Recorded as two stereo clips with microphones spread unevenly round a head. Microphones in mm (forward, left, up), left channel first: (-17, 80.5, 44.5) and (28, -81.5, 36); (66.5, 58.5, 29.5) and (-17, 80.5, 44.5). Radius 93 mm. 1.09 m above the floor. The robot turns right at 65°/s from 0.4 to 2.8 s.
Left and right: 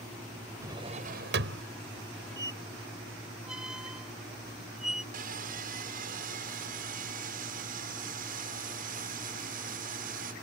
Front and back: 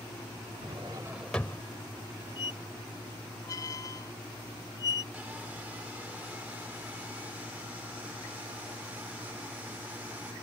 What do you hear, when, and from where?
0.6 s a drawer: 150° right; by 1.6 s 85° right
2.4 s a squeak: 15° right; by 5.0 s 15° left
5.1 s sawing: 115° right